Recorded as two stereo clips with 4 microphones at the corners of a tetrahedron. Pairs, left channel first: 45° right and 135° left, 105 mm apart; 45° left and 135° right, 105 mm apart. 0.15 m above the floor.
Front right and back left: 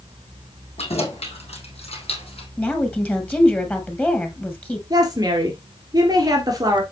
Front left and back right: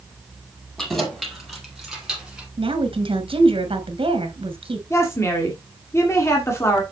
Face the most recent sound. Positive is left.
turn(degrees=100)